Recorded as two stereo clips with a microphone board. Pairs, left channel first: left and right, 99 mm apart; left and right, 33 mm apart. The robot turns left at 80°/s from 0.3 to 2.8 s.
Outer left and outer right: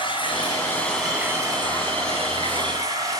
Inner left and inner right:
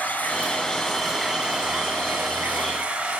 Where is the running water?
55° left, 8 m; by 3.2 s 145° right, 8 m.